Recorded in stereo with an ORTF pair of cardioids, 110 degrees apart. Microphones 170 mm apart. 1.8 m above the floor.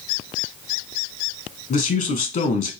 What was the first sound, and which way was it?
A man speaking, 50° left.